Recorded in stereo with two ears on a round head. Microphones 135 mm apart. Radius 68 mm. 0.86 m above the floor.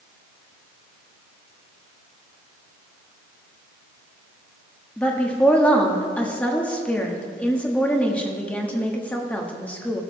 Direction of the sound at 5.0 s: 10° left (ahead or behind).